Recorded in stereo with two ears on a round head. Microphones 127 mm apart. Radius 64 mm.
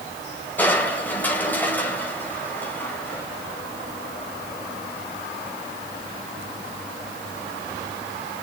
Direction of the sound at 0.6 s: 10° left (ahead or behind).